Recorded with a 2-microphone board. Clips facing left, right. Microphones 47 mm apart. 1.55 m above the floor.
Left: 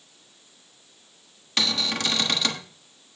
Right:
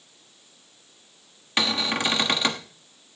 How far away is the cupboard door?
About 1.3 m.